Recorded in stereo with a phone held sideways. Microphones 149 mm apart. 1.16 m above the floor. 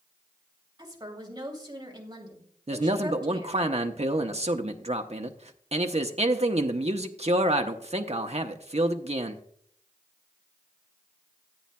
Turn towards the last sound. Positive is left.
turn(degrees=-45)  # may be behind; listen again after turning